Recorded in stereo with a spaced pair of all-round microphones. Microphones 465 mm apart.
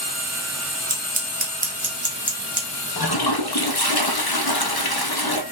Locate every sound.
0.9 s scissors: 15° right (ahead or behind), 1.2 m
3.0 s a toilet flushing: 55° left (ahead or behind), 0.6 m